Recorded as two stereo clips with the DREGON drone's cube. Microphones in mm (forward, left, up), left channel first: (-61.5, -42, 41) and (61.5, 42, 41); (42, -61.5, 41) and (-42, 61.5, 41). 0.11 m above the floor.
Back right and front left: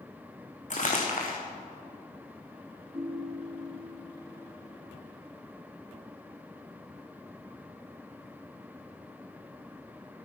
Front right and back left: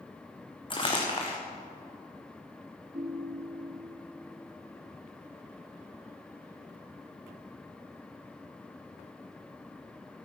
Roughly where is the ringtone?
Left.